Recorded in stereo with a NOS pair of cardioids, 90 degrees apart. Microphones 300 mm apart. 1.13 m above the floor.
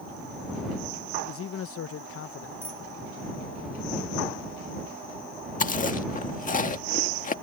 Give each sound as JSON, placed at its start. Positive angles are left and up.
{"t": 1.2, "sound": "a man speaking", "azimuth_deg": 50}
{"t": 2.6, "sound": "a bicycle bell", "azimuth_deg": -10}
{"t": 5.6, "sound": "chewing", "azimuth_deg": 25}